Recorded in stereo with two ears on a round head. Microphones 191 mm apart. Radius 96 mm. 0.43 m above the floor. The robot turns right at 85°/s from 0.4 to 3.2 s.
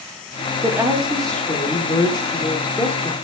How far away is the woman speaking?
About 0.9 m.